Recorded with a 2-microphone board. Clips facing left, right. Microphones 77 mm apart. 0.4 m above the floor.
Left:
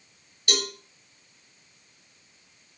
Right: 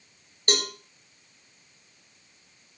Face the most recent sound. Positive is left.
turn(degrees=-40)  # may be behind; listen again after turning